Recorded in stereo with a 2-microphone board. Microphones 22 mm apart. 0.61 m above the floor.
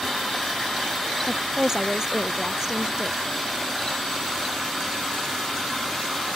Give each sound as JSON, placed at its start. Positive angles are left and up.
{"t": 1.3, "sound": "a woman speaking", "side_deg": -30}